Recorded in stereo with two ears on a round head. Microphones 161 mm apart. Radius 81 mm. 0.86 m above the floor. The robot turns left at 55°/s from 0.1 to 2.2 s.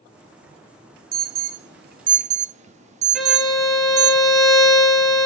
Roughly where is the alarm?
Right.